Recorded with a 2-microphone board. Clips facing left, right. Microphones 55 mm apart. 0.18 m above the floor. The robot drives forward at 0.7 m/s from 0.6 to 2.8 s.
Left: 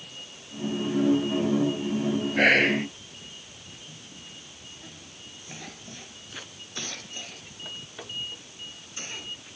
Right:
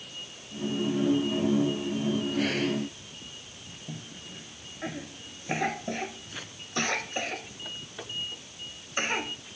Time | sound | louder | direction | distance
2.4 | whispering | left 7 dB | 65° left (ahead or behind) | ?
3.9 | a cough | right 4 dB | 60° right (ahead or behind) | ?